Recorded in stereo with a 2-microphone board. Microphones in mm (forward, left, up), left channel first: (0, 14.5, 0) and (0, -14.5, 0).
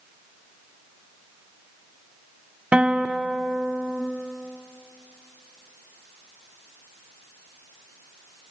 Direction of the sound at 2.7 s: 40° right (ahead or behind).